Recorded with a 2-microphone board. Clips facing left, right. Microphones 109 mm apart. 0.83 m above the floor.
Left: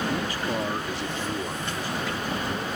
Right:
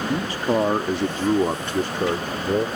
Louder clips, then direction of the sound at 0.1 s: Right 6 dB; 25° right (ahead or behind).